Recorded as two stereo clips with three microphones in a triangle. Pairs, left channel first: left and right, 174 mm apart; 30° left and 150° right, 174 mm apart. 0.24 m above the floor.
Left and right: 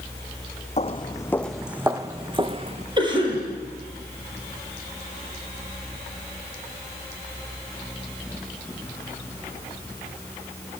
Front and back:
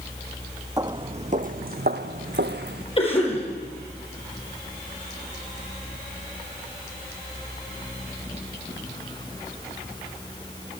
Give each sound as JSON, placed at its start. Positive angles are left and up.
{"t": 0.8, "sound": "footsteps", "azimuth_deg": 140, "distance_m": 0.9}
{"t": 3.0, "sound": "a cough", "azimuth_deg": -25, "distance_m": 6.5}